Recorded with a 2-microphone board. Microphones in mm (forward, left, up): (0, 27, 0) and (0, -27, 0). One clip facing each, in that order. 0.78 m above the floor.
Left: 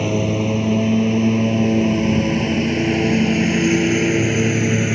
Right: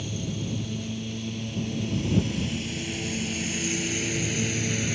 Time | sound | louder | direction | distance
0.0 | a lawn mower | left 14 dB | 70° left (ahead or behind) | ?